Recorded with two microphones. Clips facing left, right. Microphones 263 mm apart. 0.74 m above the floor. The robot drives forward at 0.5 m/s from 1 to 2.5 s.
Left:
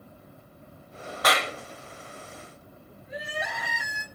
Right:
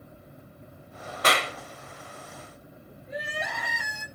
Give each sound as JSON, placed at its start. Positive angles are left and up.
{"t": 1.2, "sound": "a clap", "side_deg": -30, "distance_m": 0.6}
{"t": 3.1, "sound": "crying", "side_deg": 5, "distance_m": 0.9}